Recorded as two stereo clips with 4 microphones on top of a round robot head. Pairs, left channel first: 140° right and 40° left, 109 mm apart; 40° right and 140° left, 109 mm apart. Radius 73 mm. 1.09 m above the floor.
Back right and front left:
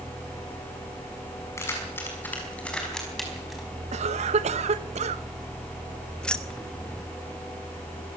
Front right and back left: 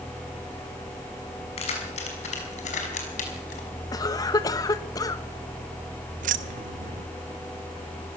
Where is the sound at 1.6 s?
75° right, 6 m; by 3.7 s 45° right, 5 m.